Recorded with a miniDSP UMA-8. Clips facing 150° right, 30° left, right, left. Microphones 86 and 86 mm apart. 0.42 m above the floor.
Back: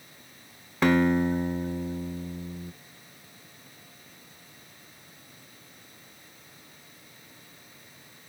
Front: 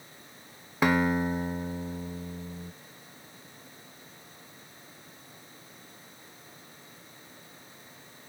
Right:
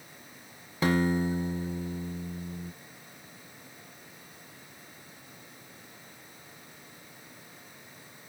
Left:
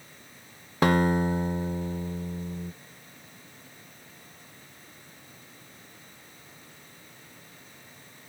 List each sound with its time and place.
0.8 s a guitar: 110° left, 0.6 m